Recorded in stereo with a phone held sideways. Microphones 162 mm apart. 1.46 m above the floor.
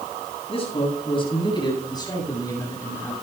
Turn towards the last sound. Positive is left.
turn(degrees=15)  # may be behind; listen again after turning